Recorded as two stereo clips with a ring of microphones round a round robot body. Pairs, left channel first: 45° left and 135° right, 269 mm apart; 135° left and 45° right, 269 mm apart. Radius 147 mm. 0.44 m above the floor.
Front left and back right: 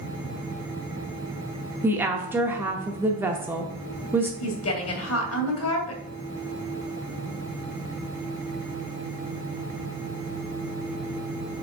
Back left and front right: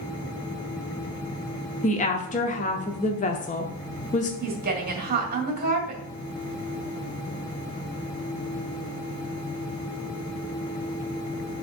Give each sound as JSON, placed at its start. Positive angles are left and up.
{"t": 1.8, "sound": "a woman speaking", "azimuth_deg": 150, "distance_m": 0.8}
{"t": 4.4, "sound": "a woman speaking", "azimuth_deg": 10, "distance_m": 2.0}